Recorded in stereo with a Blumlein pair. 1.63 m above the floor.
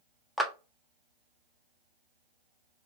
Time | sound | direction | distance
0.4 | a clap | straight ahead | 0.8 m